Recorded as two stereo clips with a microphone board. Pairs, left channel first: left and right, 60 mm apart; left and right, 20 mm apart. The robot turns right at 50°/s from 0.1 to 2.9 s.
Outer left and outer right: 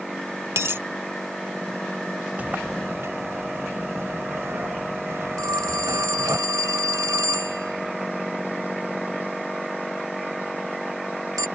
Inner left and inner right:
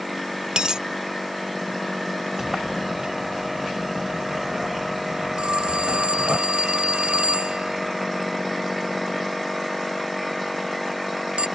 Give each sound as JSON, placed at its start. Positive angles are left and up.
{"t": 0.6, "sound": "a dropped coin", "side_deg": -50}
{"t": 2.4, "sound": "a sliding door", "side_deg": -25}
{"t": 5.4, "sound": "a phone ringing", "side_deg": -75}